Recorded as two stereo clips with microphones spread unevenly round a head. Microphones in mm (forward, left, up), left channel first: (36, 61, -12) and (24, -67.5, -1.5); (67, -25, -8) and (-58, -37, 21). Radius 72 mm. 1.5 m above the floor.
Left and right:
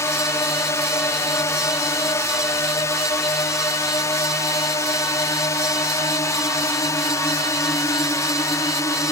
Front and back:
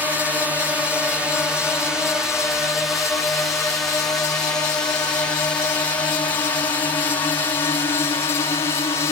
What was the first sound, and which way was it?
A drone, 95° left.